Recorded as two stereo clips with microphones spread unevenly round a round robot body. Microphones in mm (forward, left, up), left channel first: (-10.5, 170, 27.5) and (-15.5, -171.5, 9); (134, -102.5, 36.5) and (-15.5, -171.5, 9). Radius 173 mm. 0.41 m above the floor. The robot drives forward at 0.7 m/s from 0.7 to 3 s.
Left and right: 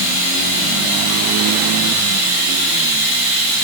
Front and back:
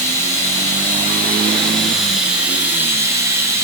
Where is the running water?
50° right, 3 m; by 3.6 s 80° right, 2.5 m.